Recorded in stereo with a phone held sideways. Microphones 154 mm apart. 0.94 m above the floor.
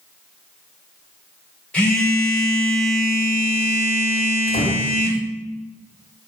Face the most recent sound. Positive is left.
turn(degrees=65)  # may be behind; listen again after turning